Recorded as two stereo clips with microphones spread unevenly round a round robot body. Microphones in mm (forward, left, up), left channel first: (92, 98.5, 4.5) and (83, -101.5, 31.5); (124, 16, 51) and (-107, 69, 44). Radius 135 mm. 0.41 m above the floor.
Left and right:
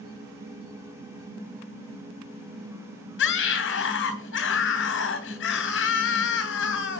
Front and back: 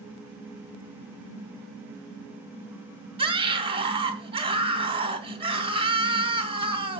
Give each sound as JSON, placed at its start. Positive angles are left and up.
{"t": 3.2, "sound": "a scream", "azimuth_deg": 100, "distance_m": 2.5}